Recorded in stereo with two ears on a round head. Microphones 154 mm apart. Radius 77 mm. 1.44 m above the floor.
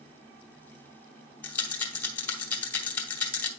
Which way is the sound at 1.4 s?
15° left (ahead or behind).